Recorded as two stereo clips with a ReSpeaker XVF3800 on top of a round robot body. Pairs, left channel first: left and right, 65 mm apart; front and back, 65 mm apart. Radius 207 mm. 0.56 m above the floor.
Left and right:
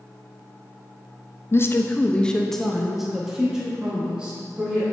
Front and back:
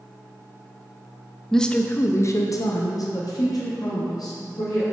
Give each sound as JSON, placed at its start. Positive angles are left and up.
{"t": 1.5, "sound": "a woman speaking", "azimuth_deg": 85, "distance_m": 0.7}